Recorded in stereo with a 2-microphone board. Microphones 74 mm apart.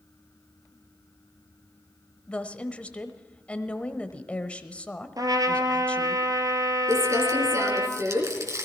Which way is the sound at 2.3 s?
15° left (ahead or behind).